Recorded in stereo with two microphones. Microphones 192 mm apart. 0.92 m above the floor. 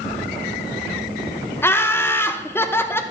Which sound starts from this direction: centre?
Laughter, at 1.6 s.